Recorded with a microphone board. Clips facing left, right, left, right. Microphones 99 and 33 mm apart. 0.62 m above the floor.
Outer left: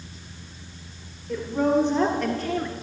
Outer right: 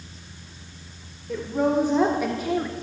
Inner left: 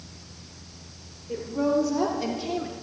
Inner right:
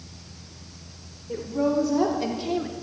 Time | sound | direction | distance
1.3 | a woman speaking | 5° right (ahead or behind) | 1.9 m